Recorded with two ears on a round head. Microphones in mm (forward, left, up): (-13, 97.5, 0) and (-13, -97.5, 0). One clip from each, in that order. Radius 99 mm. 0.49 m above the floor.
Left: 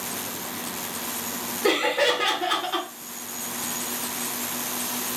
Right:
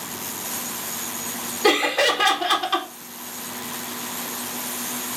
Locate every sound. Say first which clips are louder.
1.6 s laughter: right 3 dB; 45° right (ahead or behind), 0.9 m